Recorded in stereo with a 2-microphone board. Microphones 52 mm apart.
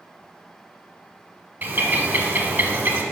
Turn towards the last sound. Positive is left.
turn(degrees=-30)  # may be behind; listen again after turning